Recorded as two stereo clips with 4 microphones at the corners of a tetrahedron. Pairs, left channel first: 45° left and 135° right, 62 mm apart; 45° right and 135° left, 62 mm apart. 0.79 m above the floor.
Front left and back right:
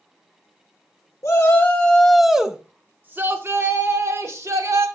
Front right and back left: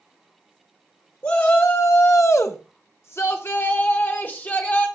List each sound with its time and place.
1.2 s a shout: 5° left, 1.0 m; by 4.9 s 105° right, 2.5 m